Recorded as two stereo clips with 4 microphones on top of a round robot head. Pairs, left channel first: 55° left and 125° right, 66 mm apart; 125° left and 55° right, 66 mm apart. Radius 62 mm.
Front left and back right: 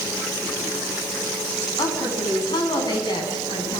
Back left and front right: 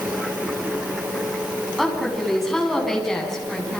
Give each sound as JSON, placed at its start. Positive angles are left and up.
{"t": 1.8, "sound": "a woman speaking", "azimuth_deg": 35, "distance_m": 8.5}